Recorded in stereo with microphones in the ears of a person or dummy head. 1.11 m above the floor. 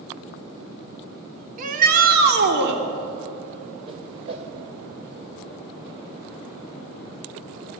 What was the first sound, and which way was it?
A shout, 45° right (ahead or behind).